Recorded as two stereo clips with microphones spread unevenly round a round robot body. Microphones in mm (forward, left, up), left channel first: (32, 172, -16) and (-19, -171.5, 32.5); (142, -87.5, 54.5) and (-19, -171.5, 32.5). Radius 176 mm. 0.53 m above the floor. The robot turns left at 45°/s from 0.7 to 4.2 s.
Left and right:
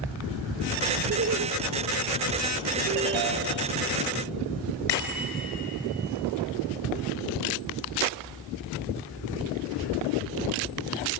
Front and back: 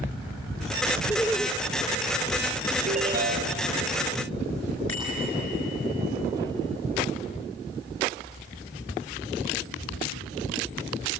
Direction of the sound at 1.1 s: 50° right.